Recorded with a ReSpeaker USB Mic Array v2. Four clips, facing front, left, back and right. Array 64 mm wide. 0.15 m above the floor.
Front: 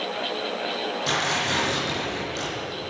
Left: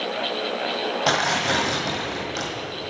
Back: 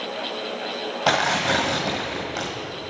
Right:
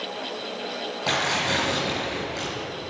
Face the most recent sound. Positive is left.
turn(degrees=160)